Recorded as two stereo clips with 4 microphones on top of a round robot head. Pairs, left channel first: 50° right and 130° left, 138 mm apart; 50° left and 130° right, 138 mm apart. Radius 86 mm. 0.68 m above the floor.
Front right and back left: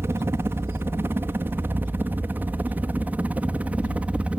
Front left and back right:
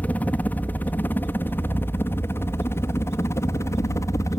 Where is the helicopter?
110° left; by 4.4 s 65° left.